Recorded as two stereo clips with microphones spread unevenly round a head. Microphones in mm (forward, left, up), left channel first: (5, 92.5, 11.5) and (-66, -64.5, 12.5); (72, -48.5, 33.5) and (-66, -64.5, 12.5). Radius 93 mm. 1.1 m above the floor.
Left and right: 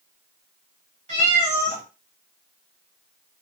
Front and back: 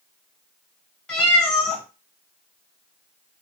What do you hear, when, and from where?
1.1 s a cat meowing: 65° right, 1.4 m